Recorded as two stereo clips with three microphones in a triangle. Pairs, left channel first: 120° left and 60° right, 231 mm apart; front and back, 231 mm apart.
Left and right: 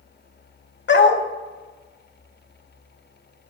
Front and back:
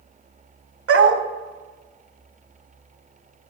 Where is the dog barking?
160° left, 0.6 m.